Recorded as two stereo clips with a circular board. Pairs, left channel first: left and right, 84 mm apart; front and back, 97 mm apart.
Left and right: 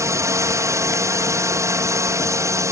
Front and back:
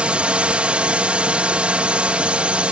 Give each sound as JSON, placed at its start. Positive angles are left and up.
{"t": 0.0, "sound": "a drone", "azimuth_deg": -110}